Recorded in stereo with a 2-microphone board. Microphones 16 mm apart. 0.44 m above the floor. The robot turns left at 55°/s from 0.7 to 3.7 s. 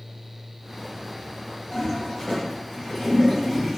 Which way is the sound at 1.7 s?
65° left (ahead or behind).